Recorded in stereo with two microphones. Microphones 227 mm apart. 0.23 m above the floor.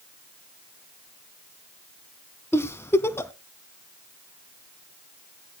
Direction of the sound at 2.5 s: 10° left (ahead or behind).